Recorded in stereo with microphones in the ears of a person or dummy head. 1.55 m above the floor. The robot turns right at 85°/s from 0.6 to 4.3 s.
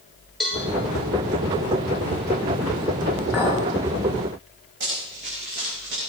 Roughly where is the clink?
Centre.